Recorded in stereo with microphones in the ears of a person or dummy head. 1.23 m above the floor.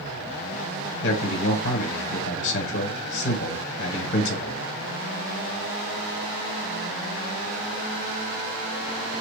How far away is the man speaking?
About 0.7 m.